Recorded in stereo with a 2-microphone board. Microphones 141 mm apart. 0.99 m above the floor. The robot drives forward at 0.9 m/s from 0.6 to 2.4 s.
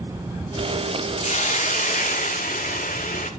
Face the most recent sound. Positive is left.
turn(degrees=80)